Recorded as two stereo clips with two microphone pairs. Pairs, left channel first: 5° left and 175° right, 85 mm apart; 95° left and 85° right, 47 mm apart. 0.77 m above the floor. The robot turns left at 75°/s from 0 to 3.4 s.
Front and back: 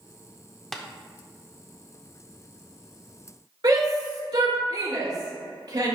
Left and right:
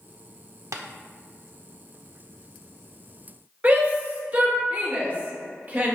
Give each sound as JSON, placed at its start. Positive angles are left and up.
{"t": 0.7, "sound": "tapping", "azimuth_deg": -80, "distance_m": 0.7}
{"t": 3.6, "sound": "a shout", "azimuth_deg": -140, "distance_m": 2.5}